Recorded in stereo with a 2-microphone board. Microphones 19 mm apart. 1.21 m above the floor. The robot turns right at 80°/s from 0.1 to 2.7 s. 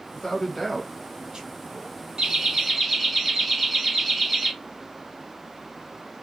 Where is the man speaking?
55° left (ahead or behind), 0.9 m; by 2.0 s 80° right, 0.9 m.